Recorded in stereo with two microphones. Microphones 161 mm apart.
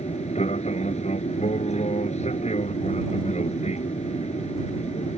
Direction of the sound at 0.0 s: 45° left (ahead or behind).